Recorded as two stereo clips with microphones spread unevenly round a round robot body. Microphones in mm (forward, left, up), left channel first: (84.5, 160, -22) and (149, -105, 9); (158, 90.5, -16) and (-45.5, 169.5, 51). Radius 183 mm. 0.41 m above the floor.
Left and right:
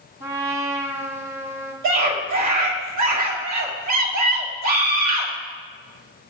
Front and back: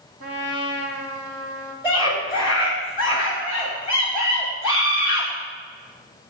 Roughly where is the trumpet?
Behind right.